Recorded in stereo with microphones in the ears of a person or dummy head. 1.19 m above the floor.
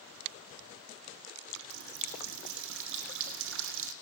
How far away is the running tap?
About 2.5 m.